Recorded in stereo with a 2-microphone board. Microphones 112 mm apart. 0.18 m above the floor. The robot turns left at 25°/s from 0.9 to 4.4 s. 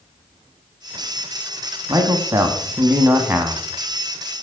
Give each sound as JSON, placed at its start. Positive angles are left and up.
{"t": 1.9, "sound": "a man speaking", "side_deg": -30, "distance_m": 1.1}